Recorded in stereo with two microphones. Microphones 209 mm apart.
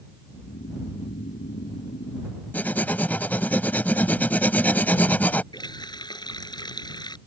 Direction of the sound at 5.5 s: 20° left (ahead or behind).